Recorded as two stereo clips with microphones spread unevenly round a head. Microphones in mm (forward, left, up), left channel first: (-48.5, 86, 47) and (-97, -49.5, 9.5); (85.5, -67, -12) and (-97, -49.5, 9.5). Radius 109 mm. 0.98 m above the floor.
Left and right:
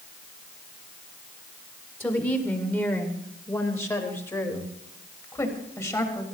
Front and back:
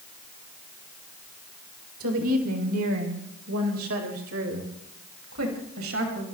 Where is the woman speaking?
150° left, 4 m; by 6.2 s 140° left, 6 m.